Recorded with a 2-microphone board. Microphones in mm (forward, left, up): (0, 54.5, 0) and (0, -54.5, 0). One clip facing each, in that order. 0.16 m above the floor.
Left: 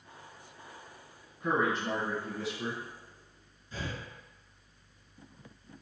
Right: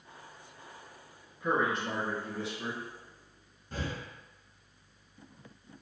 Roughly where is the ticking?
No ticking in this recording.